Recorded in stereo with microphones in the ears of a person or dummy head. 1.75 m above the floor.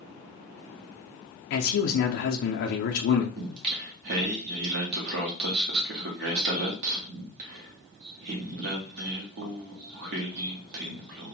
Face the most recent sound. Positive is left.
turn(degrees=-60)  # may be behind; listen again after turning